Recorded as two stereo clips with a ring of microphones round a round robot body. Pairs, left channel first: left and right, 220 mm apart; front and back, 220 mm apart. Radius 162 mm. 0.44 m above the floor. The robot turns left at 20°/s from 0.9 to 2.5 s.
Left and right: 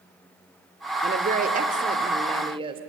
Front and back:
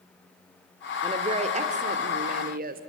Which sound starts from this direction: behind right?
A woman speaking, at 1.0 s.